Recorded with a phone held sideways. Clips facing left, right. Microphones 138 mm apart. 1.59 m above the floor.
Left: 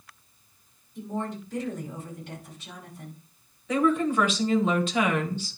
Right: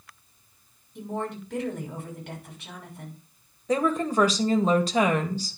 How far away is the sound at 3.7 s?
About 1.9 m.